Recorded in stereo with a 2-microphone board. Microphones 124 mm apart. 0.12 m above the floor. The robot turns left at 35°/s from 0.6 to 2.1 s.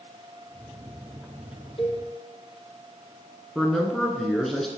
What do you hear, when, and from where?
1.8 s a cowbell: 45° left (ahead or behind), 1.9 m; by 2.0 s 50° left (ahead or behind), 1.9 m
3.5 s a man speaking: centre (ahead or behind), 1.1 m